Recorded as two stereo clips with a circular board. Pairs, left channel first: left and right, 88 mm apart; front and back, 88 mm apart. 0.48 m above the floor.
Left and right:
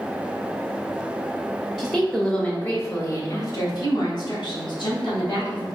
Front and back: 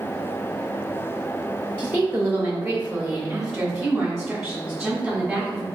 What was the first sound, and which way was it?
A woman speaking, 155° right.